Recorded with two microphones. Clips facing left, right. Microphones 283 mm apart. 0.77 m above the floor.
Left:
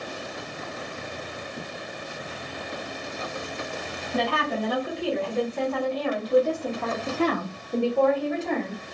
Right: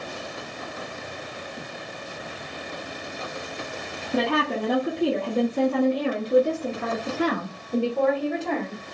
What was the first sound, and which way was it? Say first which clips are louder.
A woman speaking: right 3 dB; 65° right (ahead or behind).